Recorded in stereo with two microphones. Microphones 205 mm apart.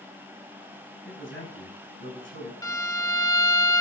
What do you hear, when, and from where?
1.1 s a man speaking: 70° left (ahead or behind), 7.5 m
2.6 s a violin: 15° left (ahead or behind), 0.6 m